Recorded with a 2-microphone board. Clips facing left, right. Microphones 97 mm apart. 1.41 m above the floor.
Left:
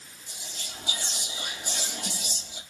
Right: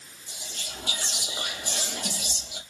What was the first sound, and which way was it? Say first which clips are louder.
Whispering: right 2 dB; 75° right (ahead or behind).